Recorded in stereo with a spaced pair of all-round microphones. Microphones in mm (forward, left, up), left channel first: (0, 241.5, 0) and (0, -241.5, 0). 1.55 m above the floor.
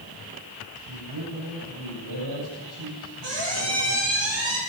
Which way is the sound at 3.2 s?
60° right (ahead or behind).